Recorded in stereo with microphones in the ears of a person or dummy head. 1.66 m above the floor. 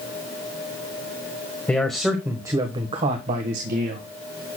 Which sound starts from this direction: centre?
A man speaking, at 1.7 s.